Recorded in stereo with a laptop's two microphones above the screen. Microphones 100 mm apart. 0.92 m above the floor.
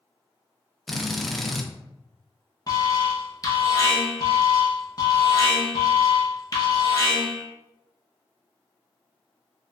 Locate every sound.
0.9 s a drill: centre (ahead or behind), 0.5 m
2.7 s an alarm: 35° left (ahead or behind), 0.8 m